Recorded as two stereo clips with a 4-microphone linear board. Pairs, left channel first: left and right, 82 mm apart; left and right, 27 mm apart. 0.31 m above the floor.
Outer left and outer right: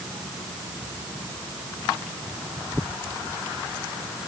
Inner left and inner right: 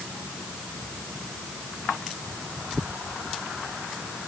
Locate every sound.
Only background noise.